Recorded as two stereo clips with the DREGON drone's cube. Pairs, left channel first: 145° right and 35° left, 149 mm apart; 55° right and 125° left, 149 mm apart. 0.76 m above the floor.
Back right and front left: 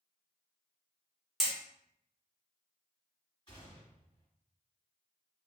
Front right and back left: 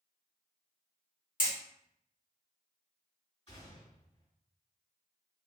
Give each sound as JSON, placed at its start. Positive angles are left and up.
{"t": 1.4, "sound": "hammering", "azimuth_deg": -55, "distance_m": 0.9}
{"t": 3.5, "sound": "a gunshot", "azimuth_deg": -100, "distance_m": 1.7}